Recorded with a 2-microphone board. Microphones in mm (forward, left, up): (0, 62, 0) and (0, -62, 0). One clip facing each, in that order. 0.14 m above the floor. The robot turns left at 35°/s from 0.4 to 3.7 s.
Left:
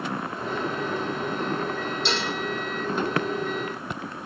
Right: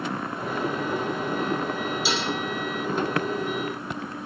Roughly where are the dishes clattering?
Centre.